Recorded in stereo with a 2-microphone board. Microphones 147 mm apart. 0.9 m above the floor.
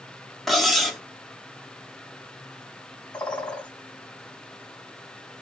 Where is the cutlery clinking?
Centre (ahead or behind), 0.8 m.